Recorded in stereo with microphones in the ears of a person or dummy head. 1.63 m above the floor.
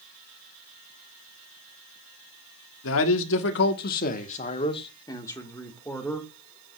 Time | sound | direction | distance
2.8 | a man speaking | 70° left (ahead or behind) | 1.3 m